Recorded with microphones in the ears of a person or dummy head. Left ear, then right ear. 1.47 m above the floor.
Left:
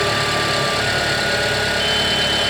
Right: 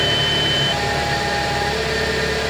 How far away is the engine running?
About 2 m.